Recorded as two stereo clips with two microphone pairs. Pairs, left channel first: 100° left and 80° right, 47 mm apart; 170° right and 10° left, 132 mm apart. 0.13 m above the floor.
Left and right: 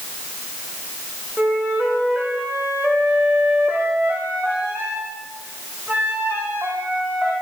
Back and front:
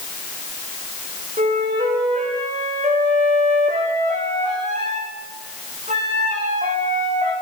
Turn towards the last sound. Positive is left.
turn(degrees=-15)